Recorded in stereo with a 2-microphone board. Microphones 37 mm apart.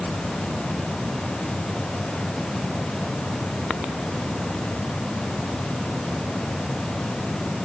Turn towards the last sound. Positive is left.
No sound to turn to.